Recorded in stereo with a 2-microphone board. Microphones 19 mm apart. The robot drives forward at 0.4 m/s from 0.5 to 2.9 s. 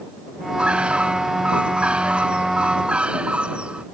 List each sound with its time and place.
0.6 s a bird: 80° right